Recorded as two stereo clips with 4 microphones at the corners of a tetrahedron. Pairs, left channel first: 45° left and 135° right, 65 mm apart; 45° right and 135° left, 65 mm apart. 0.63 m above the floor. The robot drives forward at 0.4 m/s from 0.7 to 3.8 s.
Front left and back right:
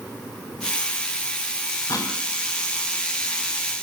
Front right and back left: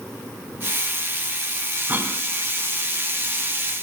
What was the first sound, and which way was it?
A cough, 75° left.